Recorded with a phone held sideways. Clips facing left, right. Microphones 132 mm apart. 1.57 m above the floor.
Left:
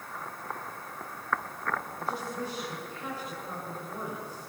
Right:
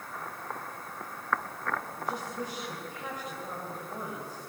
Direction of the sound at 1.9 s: 15° right (ahead or behind).